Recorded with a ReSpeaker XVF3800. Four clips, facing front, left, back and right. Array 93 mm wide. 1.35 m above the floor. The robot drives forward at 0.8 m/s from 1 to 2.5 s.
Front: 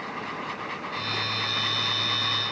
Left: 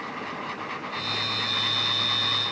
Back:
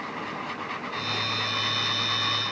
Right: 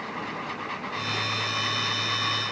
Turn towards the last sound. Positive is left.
No sound to turn to.